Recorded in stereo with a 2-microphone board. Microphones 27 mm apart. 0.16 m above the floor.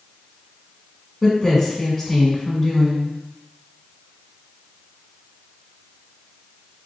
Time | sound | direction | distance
1.2 | a woman speaking | 5° left (ahead or behind) | 1.1 m